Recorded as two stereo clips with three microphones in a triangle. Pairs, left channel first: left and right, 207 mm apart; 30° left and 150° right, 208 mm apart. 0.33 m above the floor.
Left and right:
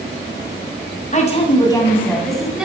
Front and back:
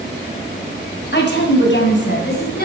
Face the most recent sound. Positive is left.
turn(degrees=-5)